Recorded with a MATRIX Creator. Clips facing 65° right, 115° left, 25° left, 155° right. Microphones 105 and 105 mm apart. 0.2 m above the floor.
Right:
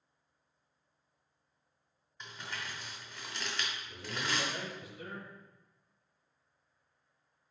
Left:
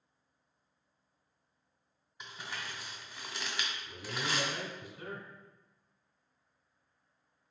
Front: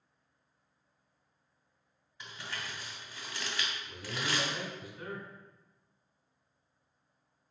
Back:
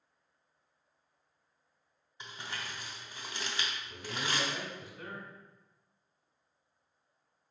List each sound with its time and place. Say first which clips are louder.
2.2 s crumpling: even, even; straight behind, 1.0 m
3.9 s a man speaking: left 1 dB, front 1 dB; 100° left, 1.6 m